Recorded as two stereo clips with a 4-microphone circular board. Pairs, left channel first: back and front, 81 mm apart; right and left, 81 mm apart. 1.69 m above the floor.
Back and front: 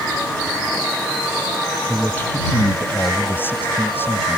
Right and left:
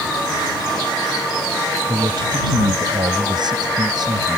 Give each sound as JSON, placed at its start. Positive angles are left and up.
{"t": 1.9, "sound": "a man speaking", "azimuth_deg": 110}